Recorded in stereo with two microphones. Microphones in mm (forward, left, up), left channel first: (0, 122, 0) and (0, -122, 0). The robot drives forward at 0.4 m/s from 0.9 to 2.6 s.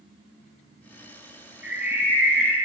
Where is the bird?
5° right (ahead or behind), 0.8 m.